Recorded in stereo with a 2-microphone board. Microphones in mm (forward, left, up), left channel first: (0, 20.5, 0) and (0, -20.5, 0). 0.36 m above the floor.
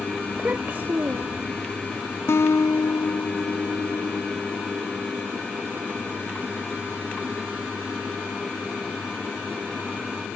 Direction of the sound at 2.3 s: 80° left.